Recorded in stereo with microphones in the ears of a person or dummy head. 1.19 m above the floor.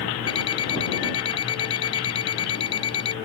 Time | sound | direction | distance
0.3 | an alarm clock | 25° left (ahead or behind) | ?